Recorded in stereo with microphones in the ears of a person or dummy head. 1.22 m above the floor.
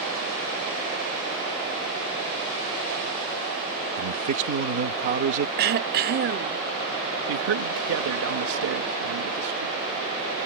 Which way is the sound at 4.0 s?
45° right (ahead or behind).